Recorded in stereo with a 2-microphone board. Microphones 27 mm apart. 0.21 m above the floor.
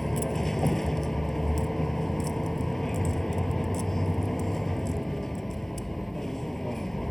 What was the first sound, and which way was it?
A vehicle, 15° left (ahead or behind).